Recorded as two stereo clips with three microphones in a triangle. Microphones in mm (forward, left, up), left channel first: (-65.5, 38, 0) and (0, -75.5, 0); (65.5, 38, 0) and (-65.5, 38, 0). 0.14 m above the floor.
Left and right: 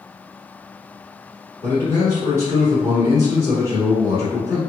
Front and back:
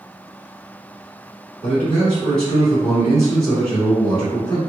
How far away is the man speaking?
About 1.3 m.